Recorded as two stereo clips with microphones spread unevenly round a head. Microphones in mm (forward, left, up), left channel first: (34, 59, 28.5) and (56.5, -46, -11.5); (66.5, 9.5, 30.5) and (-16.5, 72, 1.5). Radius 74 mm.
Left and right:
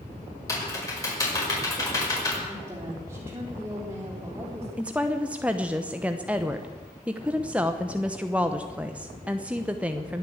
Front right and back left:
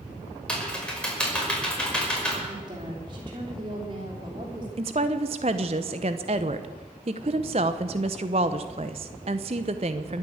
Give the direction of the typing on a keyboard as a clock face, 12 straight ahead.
11 o'clock.